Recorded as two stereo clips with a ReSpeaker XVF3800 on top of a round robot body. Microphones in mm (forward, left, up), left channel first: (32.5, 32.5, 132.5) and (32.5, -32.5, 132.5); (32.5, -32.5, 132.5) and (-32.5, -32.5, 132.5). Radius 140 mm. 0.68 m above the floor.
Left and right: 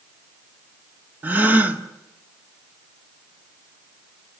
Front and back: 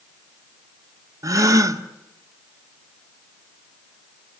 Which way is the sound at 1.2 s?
155° right.